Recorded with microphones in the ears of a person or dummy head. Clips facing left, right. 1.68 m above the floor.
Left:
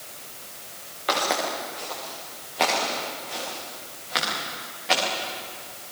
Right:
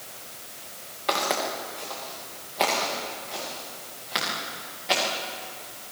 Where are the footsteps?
5° left (ahead or behind), 8.5 m; by 5.0 s centre (ahead or behind), 11.5 m.